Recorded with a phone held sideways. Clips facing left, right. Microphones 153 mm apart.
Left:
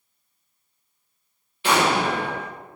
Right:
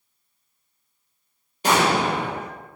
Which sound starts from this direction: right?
An explosion, at 1.6 s.